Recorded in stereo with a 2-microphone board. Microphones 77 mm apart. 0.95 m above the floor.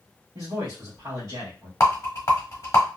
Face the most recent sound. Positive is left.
turn(degrees=40)  # may be behind; listen again after turning